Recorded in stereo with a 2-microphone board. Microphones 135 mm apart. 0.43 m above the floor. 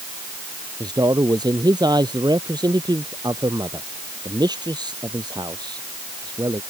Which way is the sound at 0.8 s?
30° right (ahead or behind).